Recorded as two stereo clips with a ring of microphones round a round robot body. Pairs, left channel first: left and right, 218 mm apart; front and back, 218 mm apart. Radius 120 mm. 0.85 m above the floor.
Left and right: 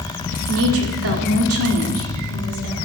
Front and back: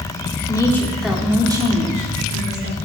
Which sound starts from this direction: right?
A woman speaking, at 0.5 s.